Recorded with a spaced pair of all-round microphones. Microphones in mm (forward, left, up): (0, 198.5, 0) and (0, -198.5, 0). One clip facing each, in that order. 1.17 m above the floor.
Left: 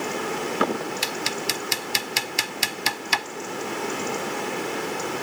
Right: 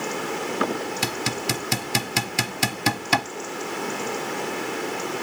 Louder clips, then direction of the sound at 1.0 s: Right 2 dB; 65° right (ahead or behind).